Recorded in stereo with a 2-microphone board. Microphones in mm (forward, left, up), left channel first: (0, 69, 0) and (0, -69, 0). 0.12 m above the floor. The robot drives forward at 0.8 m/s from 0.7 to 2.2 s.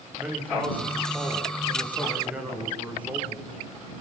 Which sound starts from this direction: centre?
A man speaking, at 0.2 s.